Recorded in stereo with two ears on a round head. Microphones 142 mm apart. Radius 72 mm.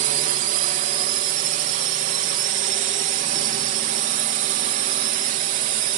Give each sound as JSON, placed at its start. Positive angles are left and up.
{"t": 0.0, "sound": "a drone", "side_deg": -50}